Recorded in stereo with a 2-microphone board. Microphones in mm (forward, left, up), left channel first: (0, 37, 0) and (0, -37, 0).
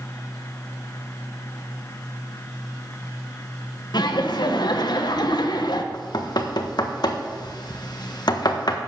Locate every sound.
3.9 s laughter: 70° left (ahead or behind), 1.3 m
5.9 s knocking: 65° left (ahead or behind), 1.3 m